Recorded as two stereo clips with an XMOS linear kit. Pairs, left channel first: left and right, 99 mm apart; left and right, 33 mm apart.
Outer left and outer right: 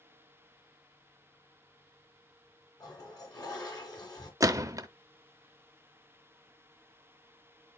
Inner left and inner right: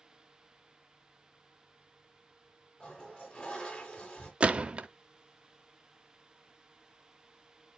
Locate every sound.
2.8 s a toilet flushing: 40° left (ahead or behind), 2.5 m
4.4 s a gunshot: 35° right (ahead or behind), 0.6 m